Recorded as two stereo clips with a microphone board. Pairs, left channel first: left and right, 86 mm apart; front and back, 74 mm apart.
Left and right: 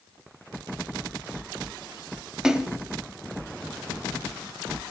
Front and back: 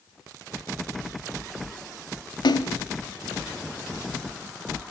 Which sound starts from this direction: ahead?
A splash, at 2.4 s.